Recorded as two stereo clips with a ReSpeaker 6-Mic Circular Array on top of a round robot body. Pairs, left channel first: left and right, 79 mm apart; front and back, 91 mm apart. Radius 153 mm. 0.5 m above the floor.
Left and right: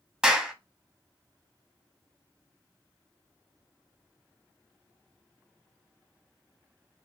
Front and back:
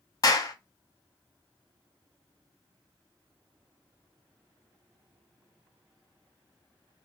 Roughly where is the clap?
Ahead.